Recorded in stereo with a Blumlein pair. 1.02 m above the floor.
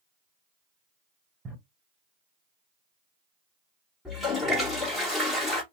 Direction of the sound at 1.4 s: 10° right.